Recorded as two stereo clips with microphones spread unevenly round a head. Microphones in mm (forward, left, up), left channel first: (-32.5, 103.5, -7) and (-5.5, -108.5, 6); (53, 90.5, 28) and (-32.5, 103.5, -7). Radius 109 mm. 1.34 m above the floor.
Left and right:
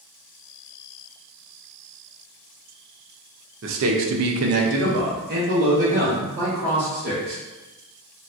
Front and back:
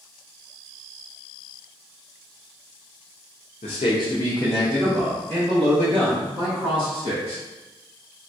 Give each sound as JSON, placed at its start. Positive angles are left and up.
{"t": 3.6, "sound": "a man speaking", "azimuth_deg": -45, "distance_m": 0.5}